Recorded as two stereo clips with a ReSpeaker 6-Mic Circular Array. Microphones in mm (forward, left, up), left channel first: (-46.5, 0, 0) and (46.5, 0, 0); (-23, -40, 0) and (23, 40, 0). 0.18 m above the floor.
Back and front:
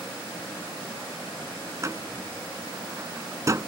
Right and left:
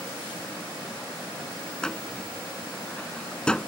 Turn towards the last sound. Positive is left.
turn(degrees=-40)